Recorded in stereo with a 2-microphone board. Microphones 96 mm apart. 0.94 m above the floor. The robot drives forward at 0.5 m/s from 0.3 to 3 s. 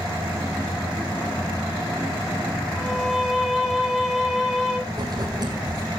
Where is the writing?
45° right (ahead or behind), 7.5 m.